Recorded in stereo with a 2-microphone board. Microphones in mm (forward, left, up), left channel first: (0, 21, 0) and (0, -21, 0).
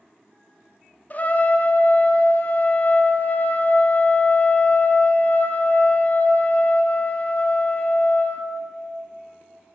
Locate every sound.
1.1 s a trumpet: 40° left (ahead or behind), 0.5 m